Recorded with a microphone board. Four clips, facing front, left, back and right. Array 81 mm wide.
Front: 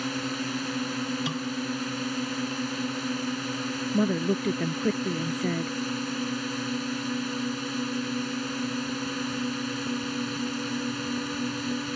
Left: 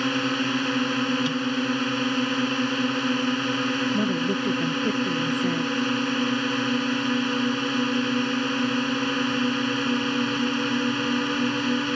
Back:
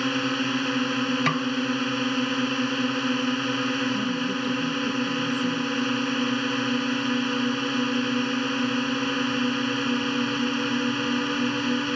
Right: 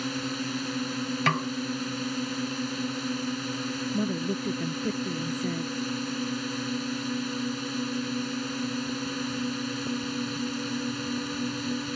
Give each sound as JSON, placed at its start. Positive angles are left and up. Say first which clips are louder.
{"t": 0.0, "sound": "a drone", "louder": "left 7 dB, back 6 dB", "azimuth_deg": 130}
{"t": 1.3, "sound": "a snare drum", "louder": "even, back 7 dB", "azimuth_deg": -130}
{"t": 3.9, "sound": "a woman speaking", "louder": "left 5 dB, front 1 dB", "azimuth_deg": 15}